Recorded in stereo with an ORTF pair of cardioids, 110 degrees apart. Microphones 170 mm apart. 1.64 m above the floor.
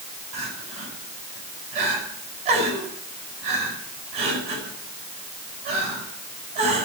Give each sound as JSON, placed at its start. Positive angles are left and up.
{"t": 0.3, "sound": "crying", "azimuth_deg": -70, "distance_m": 8.0}